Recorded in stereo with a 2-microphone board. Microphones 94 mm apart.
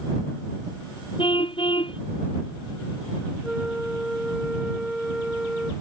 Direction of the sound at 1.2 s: 65° left (ahead or behind).